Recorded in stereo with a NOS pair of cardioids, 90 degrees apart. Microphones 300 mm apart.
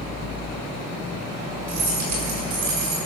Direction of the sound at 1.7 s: 65° right.